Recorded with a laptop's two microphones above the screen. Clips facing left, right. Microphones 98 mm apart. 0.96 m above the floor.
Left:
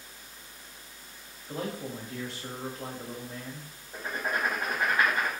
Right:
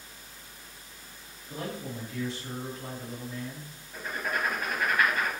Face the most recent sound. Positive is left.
turn(degrees=25)  # may be behind; listen again after turning